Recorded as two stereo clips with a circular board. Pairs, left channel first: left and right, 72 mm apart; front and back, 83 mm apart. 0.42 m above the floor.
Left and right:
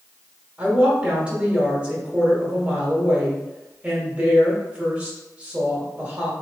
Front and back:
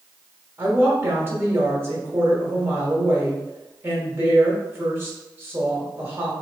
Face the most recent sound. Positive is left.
turn(degrees=-145)